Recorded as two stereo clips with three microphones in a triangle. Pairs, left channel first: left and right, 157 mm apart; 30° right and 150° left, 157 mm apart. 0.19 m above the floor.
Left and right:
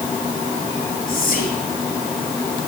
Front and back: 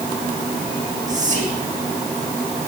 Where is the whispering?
115° left, 3 m.